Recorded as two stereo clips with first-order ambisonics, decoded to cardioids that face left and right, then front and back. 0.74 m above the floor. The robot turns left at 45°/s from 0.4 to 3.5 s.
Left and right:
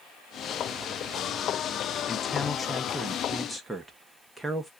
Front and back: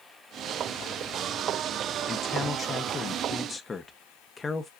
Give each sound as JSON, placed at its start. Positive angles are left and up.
{"t": 2.1, "sound": "a man speaking", "azimuth_deg": 40, "distance_m": 0.7}